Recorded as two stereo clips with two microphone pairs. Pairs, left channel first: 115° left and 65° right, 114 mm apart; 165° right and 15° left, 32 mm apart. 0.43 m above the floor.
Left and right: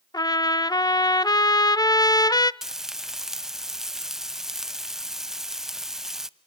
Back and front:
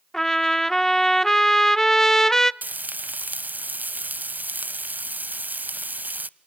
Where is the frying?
25° left, 0.6 m.